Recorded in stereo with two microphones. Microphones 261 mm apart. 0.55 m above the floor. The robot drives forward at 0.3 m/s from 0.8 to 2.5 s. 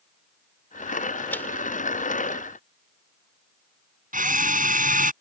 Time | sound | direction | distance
1.3 | a man speaking | 10° left (ahead or behind) | ?
4.1 | a drill | 30° right (ahead or behind) | ?